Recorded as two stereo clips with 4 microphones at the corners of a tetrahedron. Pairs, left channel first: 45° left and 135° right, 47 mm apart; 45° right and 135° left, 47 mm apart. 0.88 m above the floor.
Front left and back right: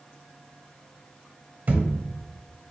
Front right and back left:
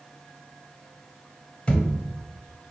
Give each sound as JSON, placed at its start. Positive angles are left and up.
{"t": 1.7, "sound": "a thud", "azimuth_deg": -100, "distance_m": 0.9}